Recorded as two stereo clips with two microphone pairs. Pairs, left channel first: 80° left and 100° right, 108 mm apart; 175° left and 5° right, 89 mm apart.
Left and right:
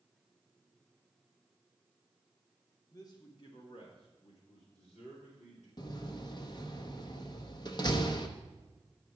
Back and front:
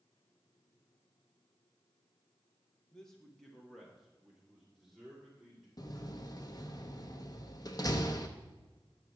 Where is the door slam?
130° left, 0.8 m.